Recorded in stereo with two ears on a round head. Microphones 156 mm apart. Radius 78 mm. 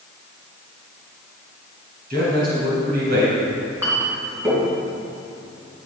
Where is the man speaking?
55° right (ahead or behind), 4.5 m; by 3.4 s 65° right (ahead or behind), 3.5 m.